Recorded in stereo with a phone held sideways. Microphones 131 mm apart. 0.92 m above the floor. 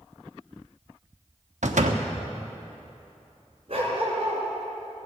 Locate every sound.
1.6 s a door slam: 75° right (ahead or behind), 1.0 m
3.7 s a dog barking: 50° right (ahead or behind), 4.5 m